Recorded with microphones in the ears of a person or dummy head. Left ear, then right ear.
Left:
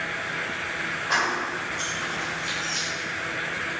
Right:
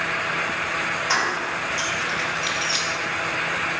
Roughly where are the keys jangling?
Right.